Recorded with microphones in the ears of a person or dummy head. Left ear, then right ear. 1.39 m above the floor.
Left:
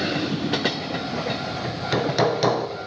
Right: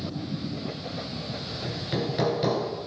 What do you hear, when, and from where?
1.6 s hammering: 40° left (ahead or behind), 0.6 m